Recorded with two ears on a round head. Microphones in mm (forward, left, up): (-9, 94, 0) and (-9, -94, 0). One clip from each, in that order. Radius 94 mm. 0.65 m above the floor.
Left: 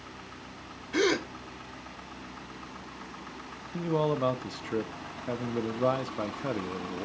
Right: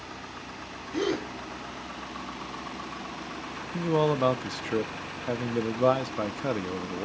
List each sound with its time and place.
0.9 s a gasp: 45° left (ahead or behind), 1.3 m
3.7 s a man speaking: 15° right (ahead or behind), 0.6 m